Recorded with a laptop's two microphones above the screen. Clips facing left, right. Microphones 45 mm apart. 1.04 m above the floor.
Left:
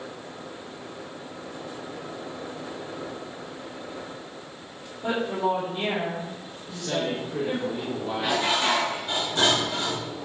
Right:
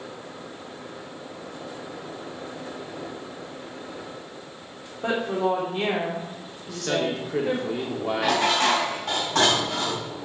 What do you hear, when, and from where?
5.0 s a woman speaking: 70° right (ahead or behind), 3.5 m
6.7 s a man speaking: 80° right, 2.5 m
8.2 s dishes clattering: 75° right (ahead or behind), 4 m